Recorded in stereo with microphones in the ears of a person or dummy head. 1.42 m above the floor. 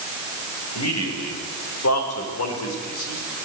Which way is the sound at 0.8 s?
85° left.